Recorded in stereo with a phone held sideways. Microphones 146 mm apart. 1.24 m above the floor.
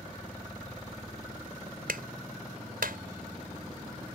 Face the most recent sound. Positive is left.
turn(degrees=-90)